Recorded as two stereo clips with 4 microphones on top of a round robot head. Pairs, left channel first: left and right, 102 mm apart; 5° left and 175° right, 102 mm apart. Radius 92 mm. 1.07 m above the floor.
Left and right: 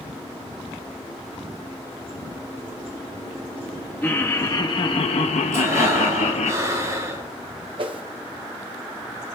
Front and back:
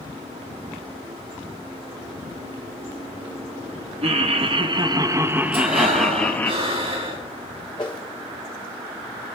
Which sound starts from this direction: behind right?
Breathing, at 5.5 s.